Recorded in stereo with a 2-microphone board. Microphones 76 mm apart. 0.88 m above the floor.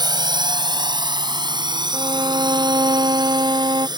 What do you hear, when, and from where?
0.0 s a drone: 75° right (ahead or behind); by 4.0 s 70° right (ahead or behind)
1.9 s a violin: 80° right